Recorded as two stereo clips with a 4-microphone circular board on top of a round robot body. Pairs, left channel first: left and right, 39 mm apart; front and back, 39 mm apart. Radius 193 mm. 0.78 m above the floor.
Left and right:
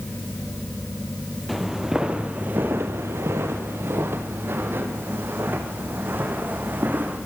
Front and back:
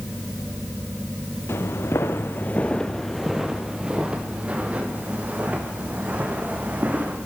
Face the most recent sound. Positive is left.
turn(degrees=-130)